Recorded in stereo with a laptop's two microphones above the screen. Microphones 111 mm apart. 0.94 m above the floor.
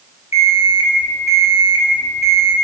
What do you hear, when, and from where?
0.3 s an alarm clock: 65° left (ahead or behind), 1.6 m